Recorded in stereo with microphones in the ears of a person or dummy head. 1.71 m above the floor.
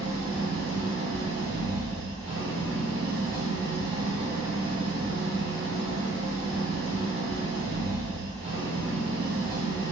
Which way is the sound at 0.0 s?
55° right (ahead or behind).